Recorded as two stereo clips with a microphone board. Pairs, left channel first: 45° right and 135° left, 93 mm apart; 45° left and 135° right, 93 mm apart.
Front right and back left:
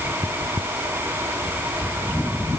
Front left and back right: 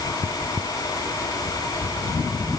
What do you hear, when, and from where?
Only background noise.